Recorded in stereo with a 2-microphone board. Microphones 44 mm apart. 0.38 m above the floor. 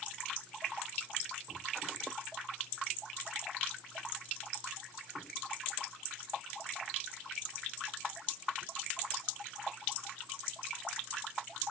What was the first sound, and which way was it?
Only background noise.